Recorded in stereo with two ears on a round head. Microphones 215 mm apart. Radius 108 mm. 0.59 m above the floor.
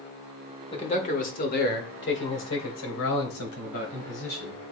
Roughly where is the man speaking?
Left.